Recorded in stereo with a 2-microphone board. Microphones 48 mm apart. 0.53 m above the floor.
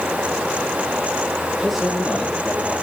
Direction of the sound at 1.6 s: 5° left (ahead or behind).